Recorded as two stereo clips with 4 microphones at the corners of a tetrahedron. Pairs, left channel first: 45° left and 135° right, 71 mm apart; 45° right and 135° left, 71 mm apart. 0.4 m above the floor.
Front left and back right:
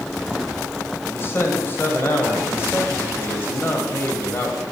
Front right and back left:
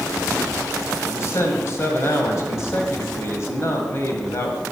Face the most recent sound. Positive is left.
turn(degrees=-5)